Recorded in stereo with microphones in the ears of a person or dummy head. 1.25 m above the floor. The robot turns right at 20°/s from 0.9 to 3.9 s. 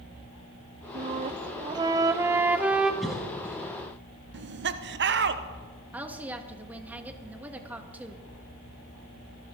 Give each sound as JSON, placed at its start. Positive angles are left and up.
{"t": 0.9, "sound": "a flute", "azimuth_deg": -40, "distance_m": 0.7}
{"t": 3.0, "sound": "a cough", "side_deg": -5, "distance_m": 2.0}
{"t": 4.3, "sound": "laughter", "side_deg": -60, "distance_m": 1.0}
{"t": 5.9, "sound": "a woman speaking", "side_deg": -10, "distance_m": 1.7}